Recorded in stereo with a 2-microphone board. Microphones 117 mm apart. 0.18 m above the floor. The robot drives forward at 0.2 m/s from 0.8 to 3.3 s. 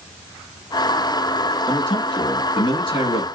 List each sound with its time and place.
1.7 s a man speaking: 50° left (ahead or behind), 1.9 m